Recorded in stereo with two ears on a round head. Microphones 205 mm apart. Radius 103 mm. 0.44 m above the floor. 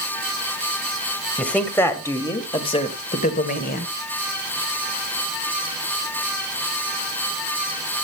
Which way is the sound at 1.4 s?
5° left (ahead or behind).